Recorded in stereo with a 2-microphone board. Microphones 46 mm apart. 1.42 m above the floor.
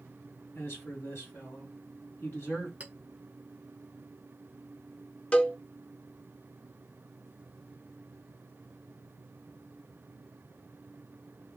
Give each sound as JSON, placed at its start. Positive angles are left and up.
{"t": 0.6, "sound": "a man speaking", "side_deg": 65, "distance_m": 1.9}
{"t": 2.8, "sound": "a clink", "side_deg": -30, "distance_m": 0.7}
{"t": 5.3, "sound": "a cowbell", "side_deg": 25, "distance_m": 0.5}